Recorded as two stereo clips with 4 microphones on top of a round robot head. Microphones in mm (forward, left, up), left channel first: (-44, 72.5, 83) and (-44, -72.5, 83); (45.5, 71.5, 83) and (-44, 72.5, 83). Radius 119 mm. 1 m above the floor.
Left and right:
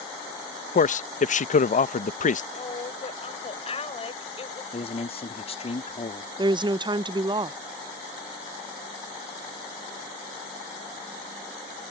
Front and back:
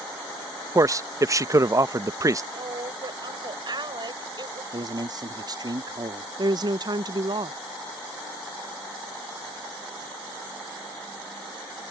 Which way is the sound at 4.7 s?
140° left.